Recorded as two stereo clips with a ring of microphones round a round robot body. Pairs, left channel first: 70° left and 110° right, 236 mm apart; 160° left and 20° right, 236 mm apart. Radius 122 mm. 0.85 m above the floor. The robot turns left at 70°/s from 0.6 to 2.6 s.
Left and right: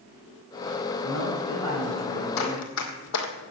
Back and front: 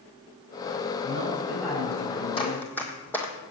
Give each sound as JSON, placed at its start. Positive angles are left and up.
{"t": 1.0, "sound": "a man speaking", "azimuth_deg": -70, "distance_m": 6.5}
{"t": 2.4, "sound": "running footsteps", "azimuth_deg": 90, "distance_m": 1.6}